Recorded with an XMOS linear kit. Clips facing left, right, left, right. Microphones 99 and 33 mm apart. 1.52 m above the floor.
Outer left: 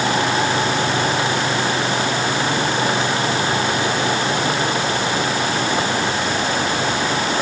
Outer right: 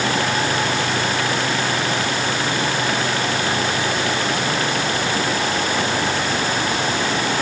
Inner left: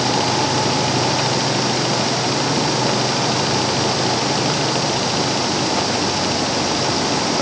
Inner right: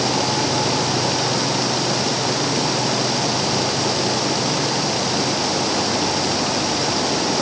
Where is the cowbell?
I don't hear a cowbell.